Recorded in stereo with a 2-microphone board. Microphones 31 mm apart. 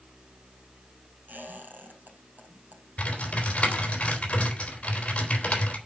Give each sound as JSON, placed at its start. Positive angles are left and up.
{"t": 1.3, "sound": "a squeak", "side_deg": -65, "distance_m": 4.0}
{"t": 3.0, "sound": "typing on a keyboard", "side_deg": 40, "distance_m": 3.5}